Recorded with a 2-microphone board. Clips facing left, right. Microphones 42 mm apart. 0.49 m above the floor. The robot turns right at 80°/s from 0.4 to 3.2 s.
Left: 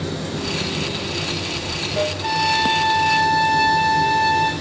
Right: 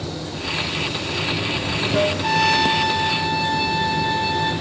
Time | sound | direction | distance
0.0 | running water | 115° left | 1.9 m
2.2 | a trumpet | 10° right | 3 m